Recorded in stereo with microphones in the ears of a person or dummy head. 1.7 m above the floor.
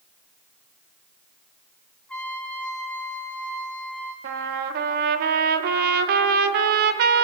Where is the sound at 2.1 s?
5° left (ahead or behind), 4.5 m.